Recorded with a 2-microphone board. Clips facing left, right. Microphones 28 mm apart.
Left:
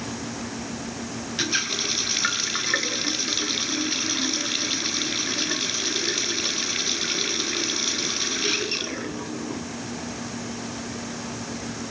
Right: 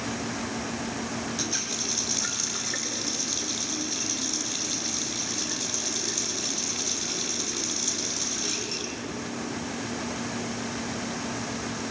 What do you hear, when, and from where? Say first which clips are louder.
1.4 s a running tap: left 6 dB; 40° left (ahead or behind), 1.5 m